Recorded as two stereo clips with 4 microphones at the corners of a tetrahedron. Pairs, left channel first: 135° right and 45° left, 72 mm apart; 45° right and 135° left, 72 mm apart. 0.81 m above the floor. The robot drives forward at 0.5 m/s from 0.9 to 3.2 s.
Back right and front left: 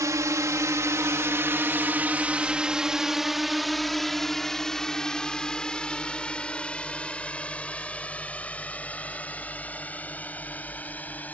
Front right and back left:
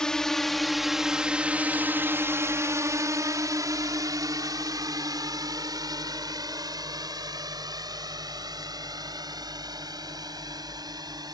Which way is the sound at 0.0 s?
30° left.